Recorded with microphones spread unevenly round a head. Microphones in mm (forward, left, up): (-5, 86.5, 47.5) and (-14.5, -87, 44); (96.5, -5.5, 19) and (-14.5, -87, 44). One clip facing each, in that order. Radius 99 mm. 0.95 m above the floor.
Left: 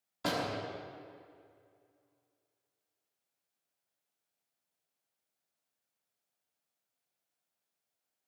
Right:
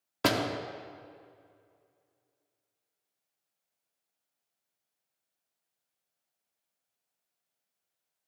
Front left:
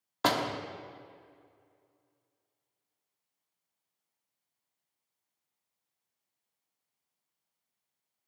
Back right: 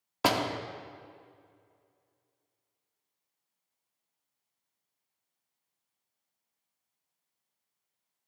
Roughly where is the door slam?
Ahead right.